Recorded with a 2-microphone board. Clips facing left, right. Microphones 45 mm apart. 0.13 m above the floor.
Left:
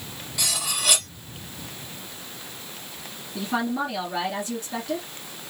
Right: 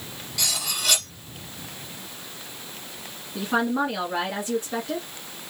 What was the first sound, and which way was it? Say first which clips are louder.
Cutlery clinking: even; 10° left (ahead or behind).